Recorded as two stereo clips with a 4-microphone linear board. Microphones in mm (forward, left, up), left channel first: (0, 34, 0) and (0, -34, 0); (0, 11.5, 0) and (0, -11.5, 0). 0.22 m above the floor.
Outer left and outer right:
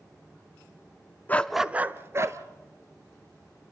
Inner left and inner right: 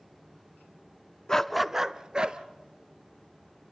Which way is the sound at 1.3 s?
25° left (ahead or behind).